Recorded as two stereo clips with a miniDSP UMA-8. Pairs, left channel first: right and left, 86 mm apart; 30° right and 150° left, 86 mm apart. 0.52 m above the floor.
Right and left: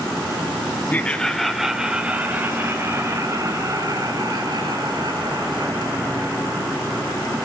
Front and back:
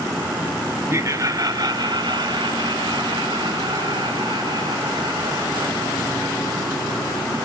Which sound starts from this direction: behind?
Laughter, at 0.9 s.